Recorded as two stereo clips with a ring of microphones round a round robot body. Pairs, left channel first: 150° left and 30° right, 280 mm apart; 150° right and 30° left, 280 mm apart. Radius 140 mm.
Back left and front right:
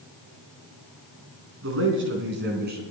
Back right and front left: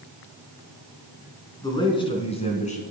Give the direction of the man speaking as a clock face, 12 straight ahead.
2 o'clock.